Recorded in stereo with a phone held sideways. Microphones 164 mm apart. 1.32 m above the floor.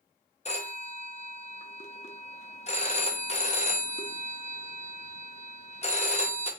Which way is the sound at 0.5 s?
40° left (ahead or behind).